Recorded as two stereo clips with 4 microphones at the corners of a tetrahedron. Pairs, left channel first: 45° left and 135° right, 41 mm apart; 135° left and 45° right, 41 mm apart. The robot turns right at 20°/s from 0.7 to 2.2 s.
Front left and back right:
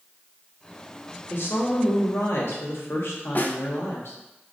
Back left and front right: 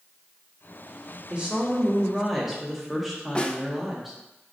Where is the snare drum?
75° left, 0.6 m.